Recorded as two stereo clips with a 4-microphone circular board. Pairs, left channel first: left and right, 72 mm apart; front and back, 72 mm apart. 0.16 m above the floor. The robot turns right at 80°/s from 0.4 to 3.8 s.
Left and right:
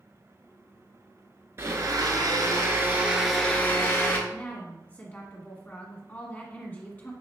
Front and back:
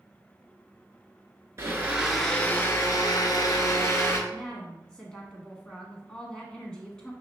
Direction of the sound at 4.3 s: 65° left.